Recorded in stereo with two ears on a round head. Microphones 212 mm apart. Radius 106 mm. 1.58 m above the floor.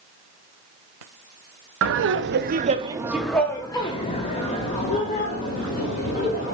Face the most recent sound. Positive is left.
turn(degrees=40)  # may be behind; listen again after turning